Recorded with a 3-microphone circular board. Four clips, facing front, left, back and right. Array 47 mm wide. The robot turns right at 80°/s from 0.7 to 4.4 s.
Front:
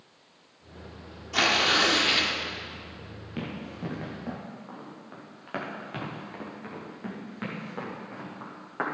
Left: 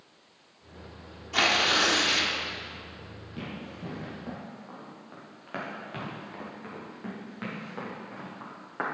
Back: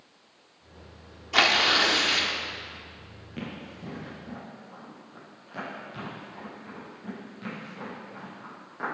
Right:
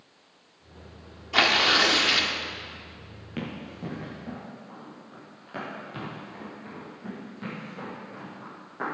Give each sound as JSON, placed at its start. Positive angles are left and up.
{"t": 1.3, "sound": "tearing paper", "azimuth_deg": -145, "distance_m": 1.2}
{"t": 3.4, "sound": "running footsteps", "azimuth_deg": -70, "distance_m": 4.5}